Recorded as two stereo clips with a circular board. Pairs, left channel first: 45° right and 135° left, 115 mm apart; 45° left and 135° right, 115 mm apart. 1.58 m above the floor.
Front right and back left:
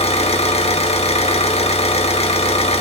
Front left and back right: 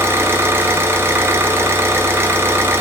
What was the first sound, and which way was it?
An engine running, 65° right.